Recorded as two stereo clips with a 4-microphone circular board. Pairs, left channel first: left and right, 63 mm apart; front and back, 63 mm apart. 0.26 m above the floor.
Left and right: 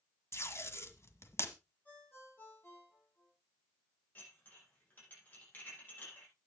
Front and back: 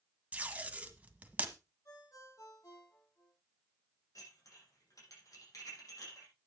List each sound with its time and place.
0.3 s tape being pulled: 120° left, 1.7 m
1.9 s a ringtone: 35° left, 10 m
4.2 s dishes clattering: 30° left, 8 m